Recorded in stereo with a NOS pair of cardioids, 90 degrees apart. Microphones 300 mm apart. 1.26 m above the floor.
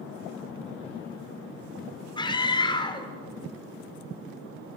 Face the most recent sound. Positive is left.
turn(degrees=15)